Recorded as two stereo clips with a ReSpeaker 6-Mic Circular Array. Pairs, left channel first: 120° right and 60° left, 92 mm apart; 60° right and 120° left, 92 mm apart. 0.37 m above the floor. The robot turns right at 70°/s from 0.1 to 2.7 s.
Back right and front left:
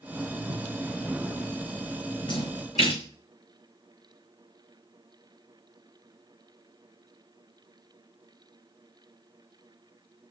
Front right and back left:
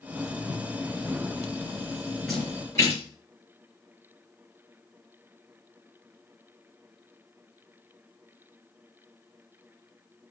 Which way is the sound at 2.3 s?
150° right.